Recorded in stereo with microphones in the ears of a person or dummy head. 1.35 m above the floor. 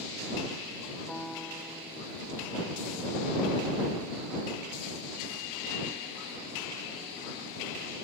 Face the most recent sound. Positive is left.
turn(degrees=0)  # may be behind; listen again after turning